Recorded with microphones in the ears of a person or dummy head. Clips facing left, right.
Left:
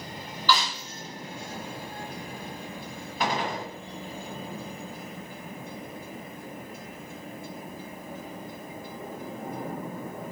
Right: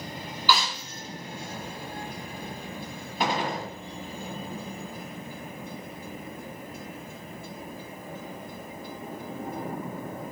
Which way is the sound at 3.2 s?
20° right (ahead or behind).